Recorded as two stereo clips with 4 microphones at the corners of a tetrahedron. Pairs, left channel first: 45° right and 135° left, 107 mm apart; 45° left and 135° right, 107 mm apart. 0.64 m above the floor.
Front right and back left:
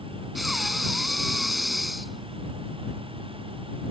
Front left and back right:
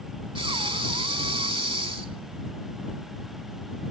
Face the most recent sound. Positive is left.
turn(degrees=-135)